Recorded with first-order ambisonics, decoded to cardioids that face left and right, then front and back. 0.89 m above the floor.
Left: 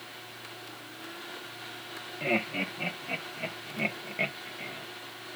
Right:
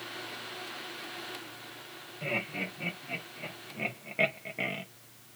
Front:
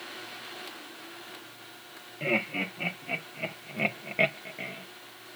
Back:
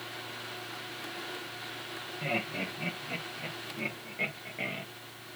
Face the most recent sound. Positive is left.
turn(degrees=-120)